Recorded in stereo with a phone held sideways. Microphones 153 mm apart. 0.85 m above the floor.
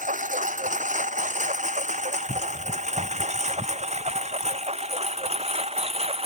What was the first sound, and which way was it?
A lawn mower, 55° right (ahead or behind).